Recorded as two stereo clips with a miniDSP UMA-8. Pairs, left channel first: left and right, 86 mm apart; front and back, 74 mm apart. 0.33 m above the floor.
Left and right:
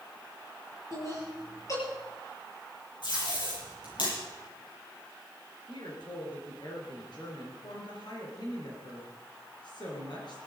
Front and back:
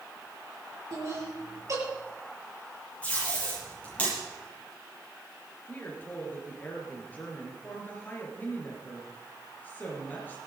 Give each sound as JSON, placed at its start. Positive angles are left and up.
{"t": 0.9, "sound": "laughter", "azimuth_deg": 135, "distance_m": 7.0}
{"t": 3.0, "sound": "tape being pulled", "azimuth_deg": 70, "distance_m": 8.5}
{"t": 5.7, "sound": "a woman speaking", "azimuth_deg": 65, "distance_m": 5.0}